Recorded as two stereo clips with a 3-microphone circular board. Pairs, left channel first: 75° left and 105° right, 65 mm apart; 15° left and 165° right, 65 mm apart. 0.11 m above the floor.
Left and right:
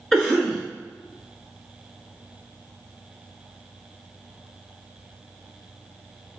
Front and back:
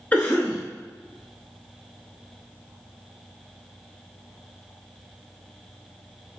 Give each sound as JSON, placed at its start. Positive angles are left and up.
{"t": 0.1, "sound": "a cough", "azimuth_deg": 5, "distance_m": 1.2}